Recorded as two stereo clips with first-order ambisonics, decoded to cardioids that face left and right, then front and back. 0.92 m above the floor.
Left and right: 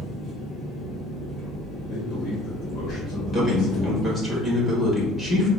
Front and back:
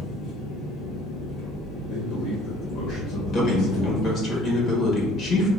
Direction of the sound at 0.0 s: 45° left.